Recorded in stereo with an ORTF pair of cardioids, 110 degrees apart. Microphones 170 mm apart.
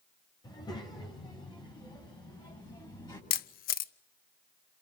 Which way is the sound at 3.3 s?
65° left.